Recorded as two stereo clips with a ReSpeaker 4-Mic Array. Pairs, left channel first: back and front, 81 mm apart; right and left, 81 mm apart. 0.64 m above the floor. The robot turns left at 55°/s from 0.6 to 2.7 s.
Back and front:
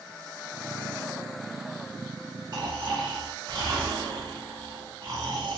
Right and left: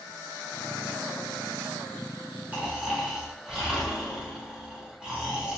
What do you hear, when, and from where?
2.5 s snoring: 20° left, 1.3 m; by 5.6 s 10° left, 1.3 m